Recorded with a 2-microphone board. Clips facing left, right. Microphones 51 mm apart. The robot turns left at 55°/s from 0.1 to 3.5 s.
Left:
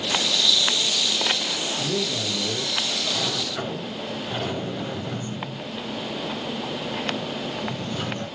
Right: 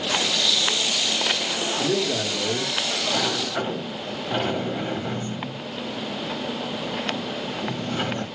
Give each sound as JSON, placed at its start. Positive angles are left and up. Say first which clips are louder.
{"t": 1.8, "sound": "a man speaking", "louder": "right 5 dB", "azimuth_deg": -90, "distance_m": 1.0}
{"t": 3.1, "sound": "a sliding door", "louder": "right 3 dB", "side_deg": -55, "distance_m": 1.1}